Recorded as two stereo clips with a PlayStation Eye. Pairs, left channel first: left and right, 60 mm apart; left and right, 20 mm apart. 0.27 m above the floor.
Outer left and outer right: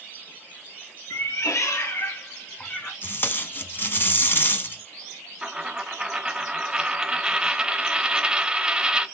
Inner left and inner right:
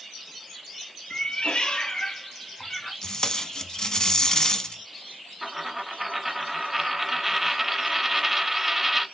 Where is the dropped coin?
15° right (ahead or behind), 0.5 m.